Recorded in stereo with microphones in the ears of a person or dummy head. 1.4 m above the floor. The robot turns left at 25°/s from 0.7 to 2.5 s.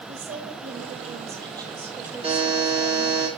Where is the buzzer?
30° right (ahead or behind), 3.5 m; by 3.3 s 25° right (ahead or behind), 3.5 m.